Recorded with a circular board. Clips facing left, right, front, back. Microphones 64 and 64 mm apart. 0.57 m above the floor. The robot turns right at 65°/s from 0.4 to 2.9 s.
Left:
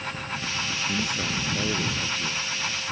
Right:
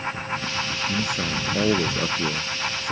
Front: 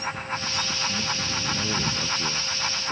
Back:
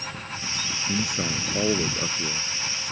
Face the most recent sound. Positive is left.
turn(degrees=-60)